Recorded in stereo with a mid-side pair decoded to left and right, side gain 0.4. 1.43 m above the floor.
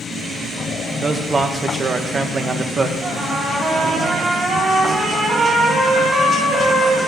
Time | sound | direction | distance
1.0 | a man speaking | 40° right | 1.7 m
3.0 | a trumpet | 55° right | 7 m